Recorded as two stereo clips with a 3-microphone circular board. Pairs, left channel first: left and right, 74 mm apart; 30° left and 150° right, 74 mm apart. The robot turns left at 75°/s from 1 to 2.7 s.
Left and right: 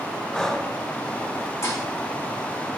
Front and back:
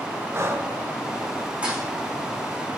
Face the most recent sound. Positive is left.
turn(degrees=60)